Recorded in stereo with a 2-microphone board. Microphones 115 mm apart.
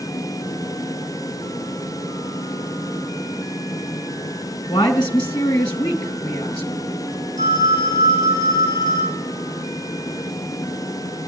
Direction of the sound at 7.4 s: 85° right.